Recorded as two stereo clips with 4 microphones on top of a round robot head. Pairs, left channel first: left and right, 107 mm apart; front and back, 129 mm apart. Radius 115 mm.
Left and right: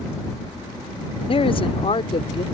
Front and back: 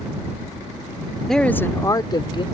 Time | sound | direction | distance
1.3 | a man speaking | 85° left | ?